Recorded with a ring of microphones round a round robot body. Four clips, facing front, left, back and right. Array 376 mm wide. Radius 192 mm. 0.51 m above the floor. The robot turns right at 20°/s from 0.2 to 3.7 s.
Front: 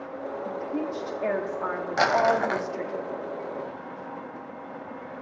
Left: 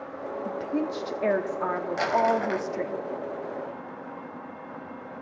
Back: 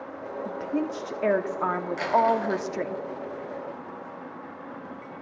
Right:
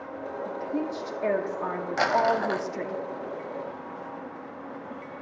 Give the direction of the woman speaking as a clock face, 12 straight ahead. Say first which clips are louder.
Left 2 dB, back 3 dB; 8 o'clock.